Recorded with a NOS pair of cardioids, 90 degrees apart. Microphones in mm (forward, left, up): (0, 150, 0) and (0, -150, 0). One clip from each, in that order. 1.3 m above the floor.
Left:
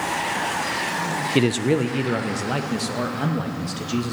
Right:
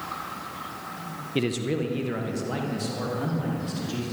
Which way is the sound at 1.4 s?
30° left.